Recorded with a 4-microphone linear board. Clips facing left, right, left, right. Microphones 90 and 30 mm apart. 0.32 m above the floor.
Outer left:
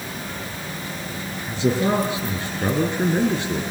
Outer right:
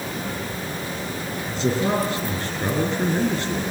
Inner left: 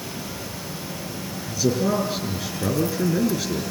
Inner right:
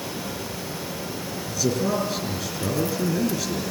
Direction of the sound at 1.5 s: 10° left (ahead or behind).